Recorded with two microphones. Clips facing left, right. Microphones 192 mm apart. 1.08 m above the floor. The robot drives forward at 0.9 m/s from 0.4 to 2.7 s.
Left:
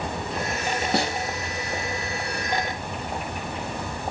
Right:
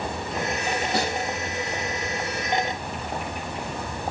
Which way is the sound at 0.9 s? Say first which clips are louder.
Left 2 dB; 65° left (ahead or behind).